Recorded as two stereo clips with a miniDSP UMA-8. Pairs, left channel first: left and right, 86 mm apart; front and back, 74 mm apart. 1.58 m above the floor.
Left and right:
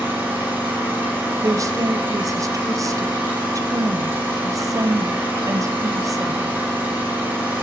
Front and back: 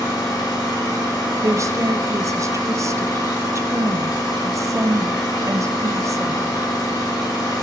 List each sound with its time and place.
0.0 s an engine running: 25° right, 3 m
1.4 s a woman speaking: 135° right, 0.6 m